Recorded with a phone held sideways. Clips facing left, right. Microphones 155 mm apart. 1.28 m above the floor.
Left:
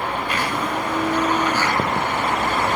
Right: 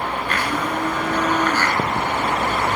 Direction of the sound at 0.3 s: 10° left (ahead or behind).